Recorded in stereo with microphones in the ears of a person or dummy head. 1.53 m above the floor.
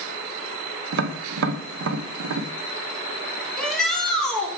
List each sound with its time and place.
0.9 s tapping: 75° right (ahead or behind), 0.7 m
3.6 s a shout: centre (ahead or behind), 1.6 m